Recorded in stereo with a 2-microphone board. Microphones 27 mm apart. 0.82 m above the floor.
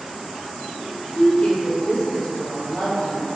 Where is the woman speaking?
35° left (ahead or behind), 0.6 m; by 3.3 s 55° left (ahead or behind), 1.5 m.